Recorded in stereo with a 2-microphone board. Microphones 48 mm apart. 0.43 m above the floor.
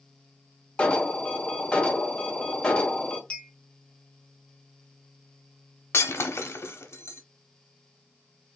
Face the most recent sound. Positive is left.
turn(degrees=65)  # may be behind; listen again after turning